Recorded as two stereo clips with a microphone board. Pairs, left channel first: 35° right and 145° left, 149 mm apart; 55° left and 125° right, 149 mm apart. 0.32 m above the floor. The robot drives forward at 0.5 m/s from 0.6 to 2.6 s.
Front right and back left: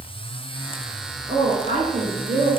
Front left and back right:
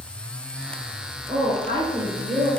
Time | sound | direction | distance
1.3 | a woman speaking | straight behind | 3 m